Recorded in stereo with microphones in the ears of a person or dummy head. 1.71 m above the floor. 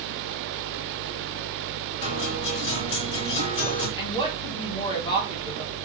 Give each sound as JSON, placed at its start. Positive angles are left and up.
{"t": 2.0, "sound": "a guitar", "side_deg": 40, "distance_m": 3.0}
{"t": 4.0, "sound": "a woman speaking", "side_deg": 25, "distance_m": 1.6}